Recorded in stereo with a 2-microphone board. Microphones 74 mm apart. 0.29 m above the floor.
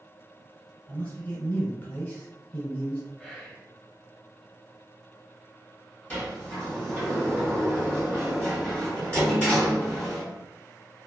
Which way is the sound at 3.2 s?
5° left (ahead or behind).